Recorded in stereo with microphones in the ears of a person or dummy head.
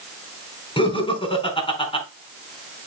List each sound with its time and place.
0.8 s laughter: 20° left (ahead or behind), 5 m